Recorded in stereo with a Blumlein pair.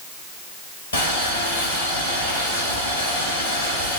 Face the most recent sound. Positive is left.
turn(degrees=60)